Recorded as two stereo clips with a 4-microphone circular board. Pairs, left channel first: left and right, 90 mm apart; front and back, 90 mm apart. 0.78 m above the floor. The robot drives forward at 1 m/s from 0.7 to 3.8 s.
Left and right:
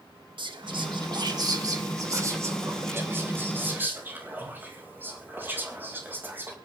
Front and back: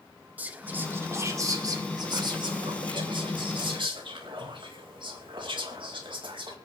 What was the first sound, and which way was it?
Whispering, 110° right.